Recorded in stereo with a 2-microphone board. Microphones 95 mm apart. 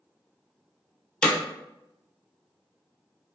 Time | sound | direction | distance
1.2 | hammering | 10° left (ahead or behind) | 0.7 m